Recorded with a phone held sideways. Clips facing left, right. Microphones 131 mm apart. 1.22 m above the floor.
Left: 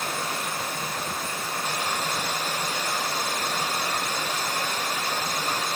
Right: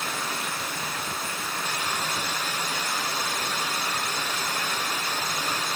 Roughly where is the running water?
Left.